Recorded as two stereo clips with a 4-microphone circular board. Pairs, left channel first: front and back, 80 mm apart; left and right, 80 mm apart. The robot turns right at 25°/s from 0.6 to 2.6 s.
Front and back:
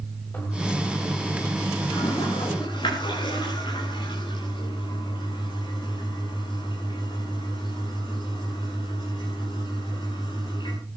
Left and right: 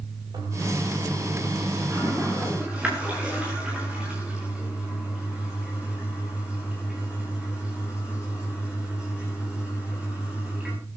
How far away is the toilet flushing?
About 8 m.